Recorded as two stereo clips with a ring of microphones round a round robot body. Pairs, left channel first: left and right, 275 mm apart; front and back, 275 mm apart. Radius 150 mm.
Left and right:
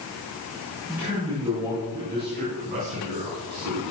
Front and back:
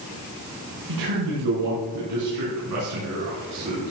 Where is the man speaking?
175° right, 4 m; by 3.9 s 125° right, 5 m.